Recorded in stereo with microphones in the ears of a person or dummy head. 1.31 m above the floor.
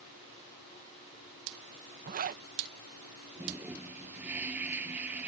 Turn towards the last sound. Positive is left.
turn(degrees=-5)  # may be behind; listen again after turning